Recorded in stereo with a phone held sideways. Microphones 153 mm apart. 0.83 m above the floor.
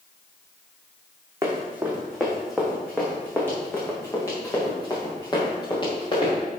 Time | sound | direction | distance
1.4 | running footsteps | 15° right (ahead or behind) | 2.5 m